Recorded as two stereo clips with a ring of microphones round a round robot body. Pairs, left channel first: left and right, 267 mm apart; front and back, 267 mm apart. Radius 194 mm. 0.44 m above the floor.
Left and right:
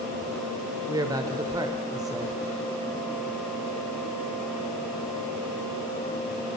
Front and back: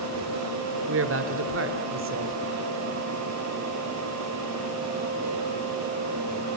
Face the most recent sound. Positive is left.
turn(degrees=-165)